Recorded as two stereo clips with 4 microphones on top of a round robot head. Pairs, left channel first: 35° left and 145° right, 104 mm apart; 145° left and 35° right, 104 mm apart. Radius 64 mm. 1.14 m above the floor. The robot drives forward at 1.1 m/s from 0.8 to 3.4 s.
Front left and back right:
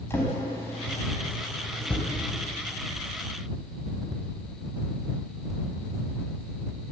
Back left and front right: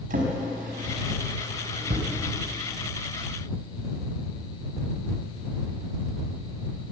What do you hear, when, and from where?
0.1 s a drawer: 35° right, 5 m; by 2.1 s 45° right, 3.5 m